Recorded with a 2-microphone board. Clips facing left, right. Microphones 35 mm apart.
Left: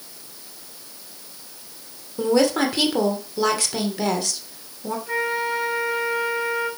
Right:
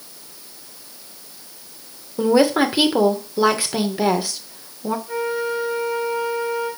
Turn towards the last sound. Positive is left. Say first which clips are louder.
# left 2 dB
turn(degrees=75)  # may be behind; listen again after turning